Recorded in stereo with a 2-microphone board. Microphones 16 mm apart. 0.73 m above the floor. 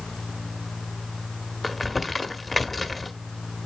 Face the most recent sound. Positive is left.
turn(degrees=5)  # may be behind; listen again after turning